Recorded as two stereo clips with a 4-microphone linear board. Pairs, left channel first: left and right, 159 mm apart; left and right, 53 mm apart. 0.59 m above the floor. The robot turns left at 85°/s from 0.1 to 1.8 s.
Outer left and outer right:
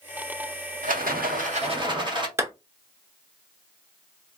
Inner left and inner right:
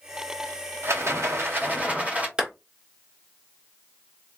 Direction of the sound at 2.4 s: 20° right (ahead or behind).